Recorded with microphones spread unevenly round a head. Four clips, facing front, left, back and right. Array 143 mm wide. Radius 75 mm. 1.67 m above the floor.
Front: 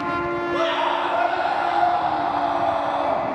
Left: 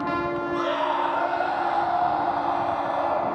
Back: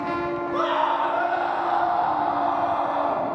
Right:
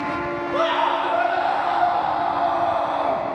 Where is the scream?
80° right, 7.5 m.